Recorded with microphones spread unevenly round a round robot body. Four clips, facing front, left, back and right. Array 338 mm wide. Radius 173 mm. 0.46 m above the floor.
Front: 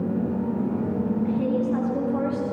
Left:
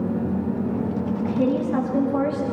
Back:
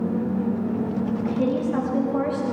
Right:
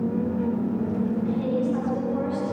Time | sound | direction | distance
1.2 | a woman speaking | 95° left | 9.5 m